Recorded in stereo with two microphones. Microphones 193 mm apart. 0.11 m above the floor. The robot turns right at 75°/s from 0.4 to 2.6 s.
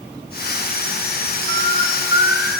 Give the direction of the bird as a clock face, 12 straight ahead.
3 o'clock.